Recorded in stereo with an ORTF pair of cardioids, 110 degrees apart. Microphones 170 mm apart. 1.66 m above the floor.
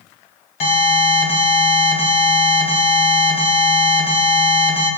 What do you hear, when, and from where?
0.6 s an alarm: 70° left, 1.3 m